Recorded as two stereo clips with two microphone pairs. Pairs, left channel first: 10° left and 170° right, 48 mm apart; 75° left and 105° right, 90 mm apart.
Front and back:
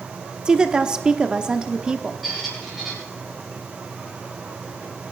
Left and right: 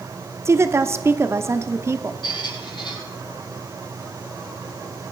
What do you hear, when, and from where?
0.5 s a woman speaking: 115° right, 0.9 m
2.2 s a squeak: 105° left, 8.5 m